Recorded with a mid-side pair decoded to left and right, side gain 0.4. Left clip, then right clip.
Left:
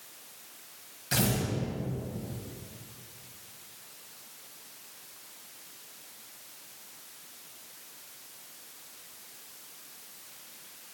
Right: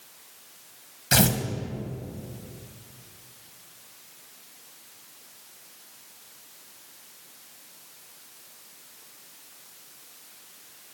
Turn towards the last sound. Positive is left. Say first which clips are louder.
# right 7 dB
turn(degrees=-65)